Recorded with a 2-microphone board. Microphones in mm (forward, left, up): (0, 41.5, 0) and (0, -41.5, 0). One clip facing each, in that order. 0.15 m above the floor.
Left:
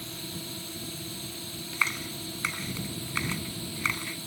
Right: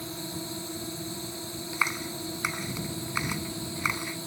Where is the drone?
20° right (ahead or behind).